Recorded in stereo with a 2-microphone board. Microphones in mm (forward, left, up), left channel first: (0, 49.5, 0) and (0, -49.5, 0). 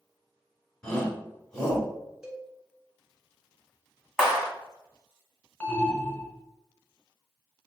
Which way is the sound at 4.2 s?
5° right (ahead or behind).